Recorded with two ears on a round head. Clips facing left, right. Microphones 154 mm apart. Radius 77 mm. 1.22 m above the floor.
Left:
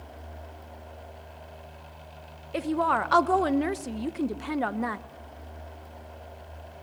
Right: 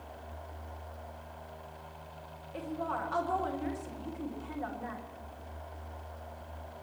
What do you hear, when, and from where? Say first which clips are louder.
2.5 s a woman speaking: left 10 dB; 80° left, 0.8 m